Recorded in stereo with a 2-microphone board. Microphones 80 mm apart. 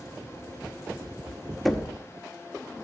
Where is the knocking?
Centre (ahead or behind), 0.7 m.